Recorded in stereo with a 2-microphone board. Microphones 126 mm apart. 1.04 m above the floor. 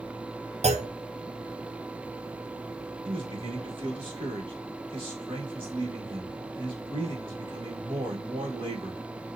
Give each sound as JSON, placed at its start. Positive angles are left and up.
{"t": 0.6, "sound": "a clunk", "side_deg": -60, "distance_m": 0.6}
{"t": 3.0, "sound": "a man speaking", "side_deg": -45, "distance_m": 2.0}